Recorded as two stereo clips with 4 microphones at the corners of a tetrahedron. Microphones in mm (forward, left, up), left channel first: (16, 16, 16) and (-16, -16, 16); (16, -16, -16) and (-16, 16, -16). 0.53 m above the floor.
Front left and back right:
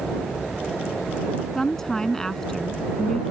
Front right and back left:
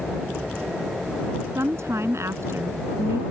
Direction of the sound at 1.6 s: 125° left.